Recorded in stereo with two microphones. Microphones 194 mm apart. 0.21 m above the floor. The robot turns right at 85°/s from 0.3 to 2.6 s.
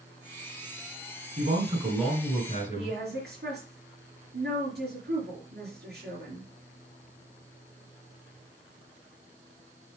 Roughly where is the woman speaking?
Right.